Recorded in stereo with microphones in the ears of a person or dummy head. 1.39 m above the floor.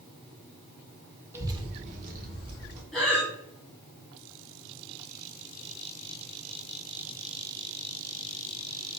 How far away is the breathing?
About 1.0 m.